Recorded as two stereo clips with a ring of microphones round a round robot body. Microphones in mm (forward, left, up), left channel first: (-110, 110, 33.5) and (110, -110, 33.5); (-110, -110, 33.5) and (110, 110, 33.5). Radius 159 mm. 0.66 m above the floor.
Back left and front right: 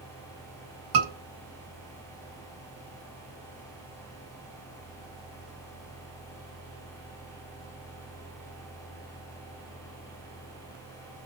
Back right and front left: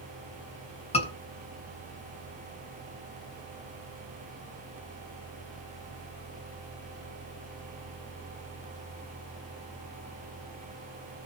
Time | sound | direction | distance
0.9 | a scream | 65° right | 7.5 m